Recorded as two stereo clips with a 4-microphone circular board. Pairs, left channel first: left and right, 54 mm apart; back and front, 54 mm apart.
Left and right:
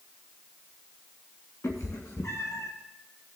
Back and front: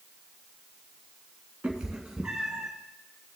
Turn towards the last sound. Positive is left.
turn(degrees=85)